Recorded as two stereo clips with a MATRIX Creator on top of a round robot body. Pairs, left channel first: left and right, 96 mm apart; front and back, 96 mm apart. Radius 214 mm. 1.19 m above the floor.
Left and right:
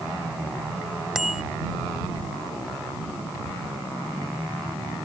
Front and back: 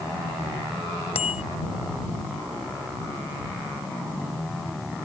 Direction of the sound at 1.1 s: 5° right.